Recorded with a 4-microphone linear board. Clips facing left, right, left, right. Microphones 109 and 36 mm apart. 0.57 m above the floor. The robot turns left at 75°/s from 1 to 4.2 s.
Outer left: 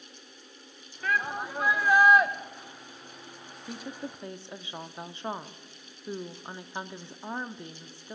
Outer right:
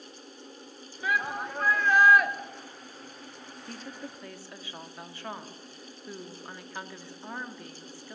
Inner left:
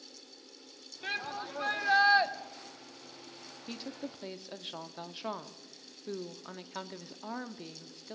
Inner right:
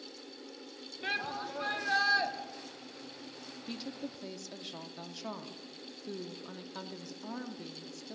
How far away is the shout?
About 1.0 m.